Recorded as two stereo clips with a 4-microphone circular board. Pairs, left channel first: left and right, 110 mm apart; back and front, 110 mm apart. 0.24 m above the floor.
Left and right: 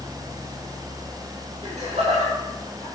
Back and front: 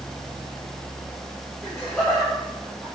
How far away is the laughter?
About 7.5 m.